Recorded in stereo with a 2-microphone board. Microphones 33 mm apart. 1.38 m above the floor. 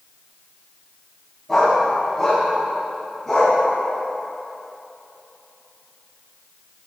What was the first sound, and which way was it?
A dog barking, 5° left (ahead or behind).